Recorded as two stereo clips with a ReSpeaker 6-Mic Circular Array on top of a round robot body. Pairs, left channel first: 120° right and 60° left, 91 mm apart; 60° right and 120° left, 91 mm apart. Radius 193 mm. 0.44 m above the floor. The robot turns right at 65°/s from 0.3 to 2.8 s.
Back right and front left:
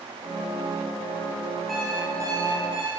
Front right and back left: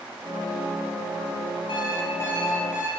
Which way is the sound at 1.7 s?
30° right.